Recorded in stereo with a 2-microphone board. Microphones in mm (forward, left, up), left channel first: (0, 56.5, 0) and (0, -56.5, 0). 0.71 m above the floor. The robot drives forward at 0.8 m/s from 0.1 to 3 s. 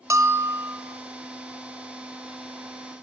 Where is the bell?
25° right (ahead or behind), 0.7 m; by 1.0 s 15° right (ahead or behind), 1.3 m.